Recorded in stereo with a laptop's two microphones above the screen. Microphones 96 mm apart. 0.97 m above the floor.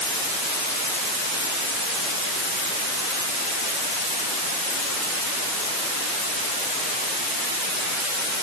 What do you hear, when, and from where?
Only background noise.